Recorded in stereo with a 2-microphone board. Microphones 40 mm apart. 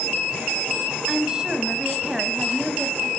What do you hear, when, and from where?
1.1 s a woman speaking: 20° right (ahead or behind), 1.1 m